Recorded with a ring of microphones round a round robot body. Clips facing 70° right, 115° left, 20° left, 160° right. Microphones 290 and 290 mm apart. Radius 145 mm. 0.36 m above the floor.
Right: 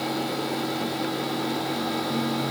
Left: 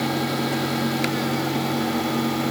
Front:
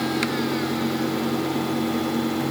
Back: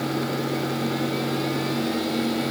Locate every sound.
Only background noise.